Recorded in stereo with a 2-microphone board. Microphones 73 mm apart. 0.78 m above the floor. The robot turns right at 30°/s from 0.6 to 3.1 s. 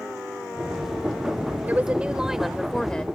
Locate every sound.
1.7 s a woman speaking: 25° right; by 3.0 s 15° left